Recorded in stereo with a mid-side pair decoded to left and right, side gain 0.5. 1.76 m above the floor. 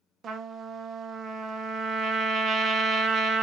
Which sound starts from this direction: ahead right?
A trumpet, at 0.2 s.